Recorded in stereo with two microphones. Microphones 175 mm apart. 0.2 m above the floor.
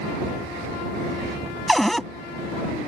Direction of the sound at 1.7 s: Centre (ahead or behind).